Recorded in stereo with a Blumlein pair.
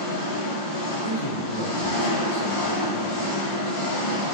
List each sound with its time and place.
0.0 s an engine running: 65° left, 1.3 m
1.0 s a man speaking: 55° left, 1.0 m